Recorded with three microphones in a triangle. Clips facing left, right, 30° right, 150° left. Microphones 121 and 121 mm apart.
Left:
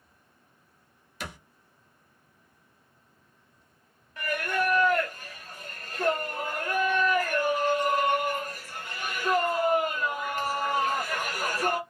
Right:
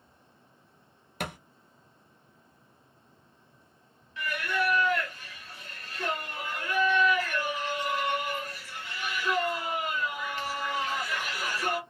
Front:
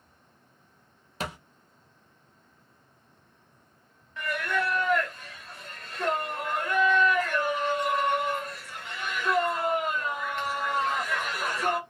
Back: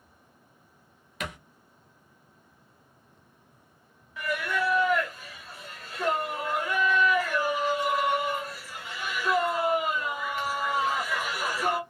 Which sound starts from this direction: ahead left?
Singing, at 4.2 s.